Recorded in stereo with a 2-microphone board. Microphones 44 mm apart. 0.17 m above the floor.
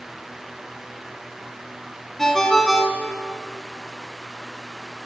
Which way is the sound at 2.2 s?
10° left (ahead or behind).